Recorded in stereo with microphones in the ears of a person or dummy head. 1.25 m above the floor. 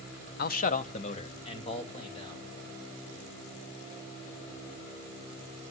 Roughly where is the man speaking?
Left.